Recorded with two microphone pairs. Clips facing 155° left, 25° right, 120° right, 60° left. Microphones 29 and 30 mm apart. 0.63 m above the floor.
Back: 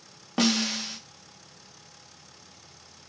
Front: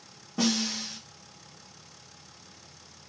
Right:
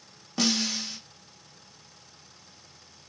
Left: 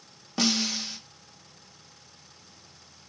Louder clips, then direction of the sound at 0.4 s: Back 3 dB, even; 135° left.